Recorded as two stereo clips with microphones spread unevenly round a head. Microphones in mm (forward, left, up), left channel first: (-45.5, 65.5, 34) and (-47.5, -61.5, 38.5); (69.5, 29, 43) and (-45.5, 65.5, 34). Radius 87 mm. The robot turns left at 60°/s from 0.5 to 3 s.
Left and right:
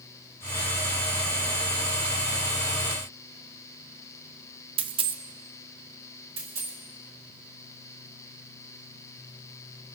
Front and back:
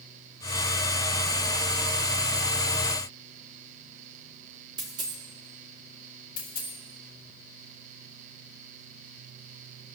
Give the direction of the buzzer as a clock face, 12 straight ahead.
No buzzer in this recording.